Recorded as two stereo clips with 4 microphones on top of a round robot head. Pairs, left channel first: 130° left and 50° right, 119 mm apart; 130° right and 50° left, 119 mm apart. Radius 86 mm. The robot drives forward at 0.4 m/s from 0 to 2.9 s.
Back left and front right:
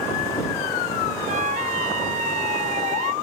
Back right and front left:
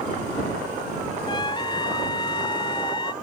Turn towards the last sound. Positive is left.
turn(degrees=-80)